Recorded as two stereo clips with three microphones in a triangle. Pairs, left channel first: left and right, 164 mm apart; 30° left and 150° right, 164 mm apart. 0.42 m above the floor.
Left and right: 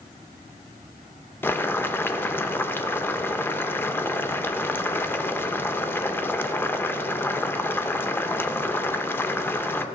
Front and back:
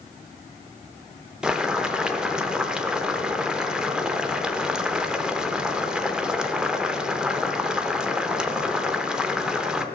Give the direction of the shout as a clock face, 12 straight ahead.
I don't hear a shout.